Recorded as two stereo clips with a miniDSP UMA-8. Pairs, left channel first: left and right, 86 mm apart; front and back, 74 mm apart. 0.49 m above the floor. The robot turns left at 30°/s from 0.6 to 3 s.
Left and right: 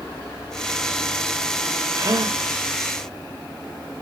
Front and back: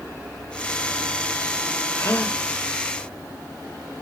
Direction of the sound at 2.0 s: 45° right.